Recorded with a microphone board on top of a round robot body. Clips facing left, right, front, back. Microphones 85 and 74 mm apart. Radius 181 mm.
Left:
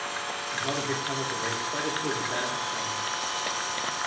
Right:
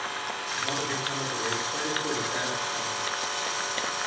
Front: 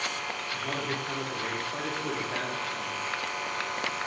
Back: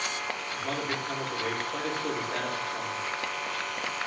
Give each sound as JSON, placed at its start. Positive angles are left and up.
{"t": 0.5, "sound": "a man speaking", "azimuth_deg": 75, "distance_m": 3.5}